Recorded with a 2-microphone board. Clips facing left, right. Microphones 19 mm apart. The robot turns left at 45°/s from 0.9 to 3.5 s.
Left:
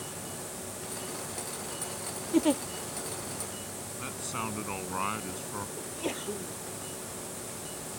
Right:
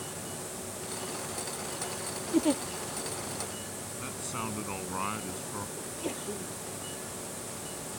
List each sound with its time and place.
2.3 s a giggle: 20° left (ahead or behind); by 2.6 s 10° left (ahead or behind)
4.0 s a man speaking: 5° left (ahead or behind)
5.8 s a sneeze: 20° left (ahead or behind)